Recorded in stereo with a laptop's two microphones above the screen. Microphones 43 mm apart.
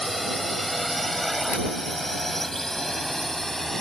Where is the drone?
Centre (ahead or behind); by 3.8 s 10° left (ahead or behind).